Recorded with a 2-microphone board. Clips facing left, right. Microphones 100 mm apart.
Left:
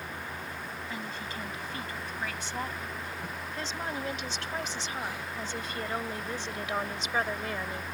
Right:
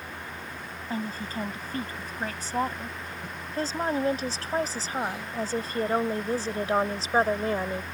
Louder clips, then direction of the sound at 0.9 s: Right 9 dB; 40° right (ahead or behind).